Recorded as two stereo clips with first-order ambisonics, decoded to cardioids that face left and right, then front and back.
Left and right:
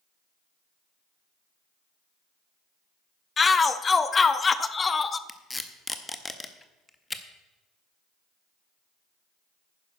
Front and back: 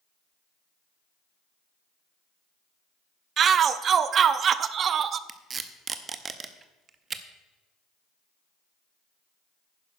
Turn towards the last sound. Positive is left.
turn(degrees=160)